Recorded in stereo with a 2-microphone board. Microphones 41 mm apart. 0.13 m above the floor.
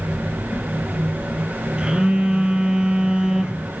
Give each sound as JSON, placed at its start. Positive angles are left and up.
{"t": 1.8, "sound": "a phone buzzing", "side_deg": -25, "distance_m": 1.7}